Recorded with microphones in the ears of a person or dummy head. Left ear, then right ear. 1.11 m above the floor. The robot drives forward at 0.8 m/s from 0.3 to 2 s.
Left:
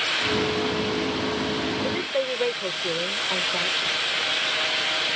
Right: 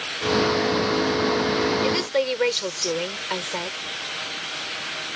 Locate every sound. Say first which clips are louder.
1.8 s a woman speaking: right 3 dB; 80° right